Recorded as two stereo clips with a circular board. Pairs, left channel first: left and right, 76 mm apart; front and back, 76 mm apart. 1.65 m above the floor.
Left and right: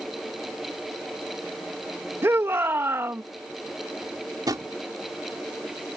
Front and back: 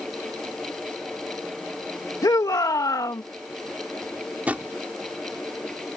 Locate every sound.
2.2 s a shout: 35° right
4.5 s a drawer: 110° right